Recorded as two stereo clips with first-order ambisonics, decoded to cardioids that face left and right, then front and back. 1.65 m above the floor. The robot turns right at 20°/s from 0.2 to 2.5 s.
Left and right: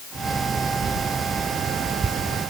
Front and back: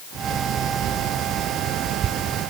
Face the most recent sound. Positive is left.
No sound to turn to.